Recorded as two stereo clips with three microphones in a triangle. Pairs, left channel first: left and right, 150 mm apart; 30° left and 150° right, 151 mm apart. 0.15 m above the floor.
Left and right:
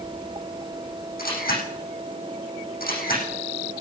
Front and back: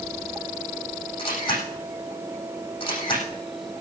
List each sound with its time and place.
1.2 s a camera shutter: 85° left, 8.5 m